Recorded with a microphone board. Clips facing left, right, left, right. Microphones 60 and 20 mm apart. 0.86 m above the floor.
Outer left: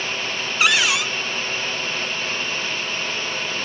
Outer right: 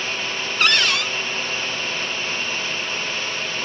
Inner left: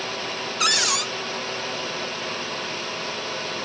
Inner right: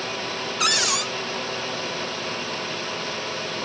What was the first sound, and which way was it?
A cupboard door, 5° left (ahead or behind).